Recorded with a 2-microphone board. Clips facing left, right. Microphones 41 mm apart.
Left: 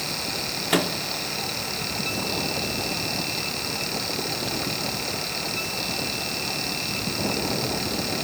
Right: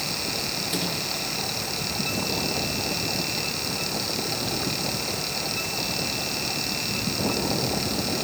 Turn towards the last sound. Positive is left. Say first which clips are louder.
# left 9 dB
turn(degrees=70)  # may be behind; listen again after turning